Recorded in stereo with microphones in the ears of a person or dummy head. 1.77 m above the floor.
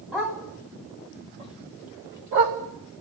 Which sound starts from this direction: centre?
A dog barking, at 0.1 s.